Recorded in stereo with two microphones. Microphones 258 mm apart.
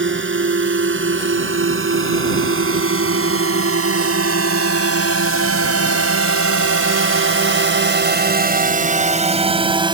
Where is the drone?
50° right (ahead or behind); by 9.9 s 15° right (ahead or behind).